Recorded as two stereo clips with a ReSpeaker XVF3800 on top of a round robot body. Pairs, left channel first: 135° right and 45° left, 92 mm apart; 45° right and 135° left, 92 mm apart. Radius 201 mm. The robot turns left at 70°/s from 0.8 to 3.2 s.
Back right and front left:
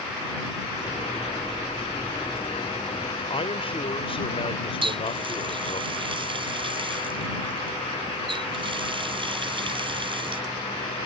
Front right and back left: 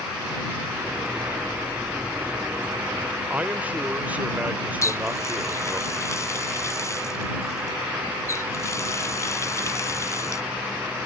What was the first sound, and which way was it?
A man speaking, 150° right.